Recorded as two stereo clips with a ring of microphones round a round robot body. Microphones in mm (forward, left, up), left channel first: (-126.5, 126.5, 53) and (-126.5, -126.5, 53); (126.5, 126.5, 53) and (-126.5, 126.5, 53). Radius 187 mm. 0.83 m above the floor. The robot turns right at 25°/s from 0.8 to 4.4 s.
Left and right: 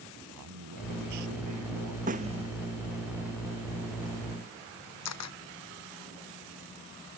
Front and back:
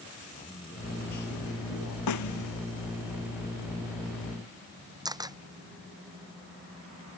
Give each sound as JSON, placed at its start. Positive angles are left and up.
{"t": 0.3, "sound": "a man speaking", "azimuth_deg": -75}
{"t": 2.1, "sound": "a snare drum", "azimuth_deg": -20}
{"t": 5.0, "sound": "a camera shutter", "azimuth_deg": 105}